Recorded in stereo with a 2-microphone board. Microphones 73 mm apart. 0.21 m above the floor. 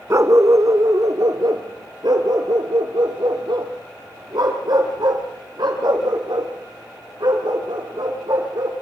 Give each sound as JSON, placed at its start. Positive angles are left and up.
{"t": 0.1, "sound": "a dog barking", "side_deg": -40, "distance_m": 1.0}